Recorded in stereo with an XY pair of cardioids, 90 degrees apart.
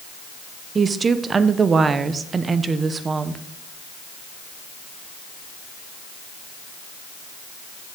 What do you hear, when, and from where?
0.8 s a woman speaking: 45° right, 0.8 m